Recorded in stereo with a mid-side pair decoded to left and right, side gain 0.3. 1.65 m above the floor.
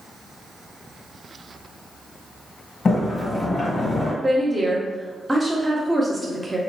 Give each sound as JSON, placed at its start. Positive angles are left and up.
{"t": 2.9, "sound": "a sliding door", "azimuth_deg": 50, "distance_m": 1.7}
{"t": 4.2, "sound": "a woman speaking", "azimuth_deg": -20, "distance_m": 1.1}